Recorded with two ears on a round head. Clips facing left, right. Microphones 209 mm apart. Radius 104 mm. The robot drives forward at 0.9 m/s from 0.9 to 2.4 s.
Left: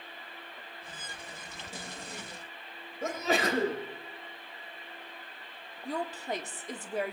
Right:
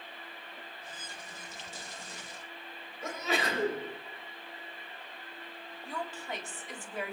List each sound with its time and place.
3.0 s a sneeze: 40° left (ahead or behind), 3.5 m
5.8 s a woman speaking: 35° left (ahead or behind), 1.6 m